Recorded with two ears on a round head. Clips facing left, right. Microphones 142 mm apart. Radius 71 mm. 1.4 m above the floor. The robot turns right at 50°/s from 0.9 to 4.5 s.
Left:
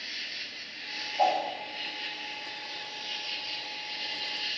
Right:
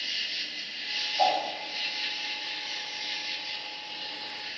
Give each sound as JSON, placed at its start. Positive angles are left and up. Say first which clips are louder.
{"t": 0.0, "sound": "an insect", "louder": "right 2 dB", "azimuth_deg": -130, "distance_m": 1.3}
{"t": 1.2, "sound": "a whoosh", "louder": "even", "side_deg": 5, "distance_m": 5.5}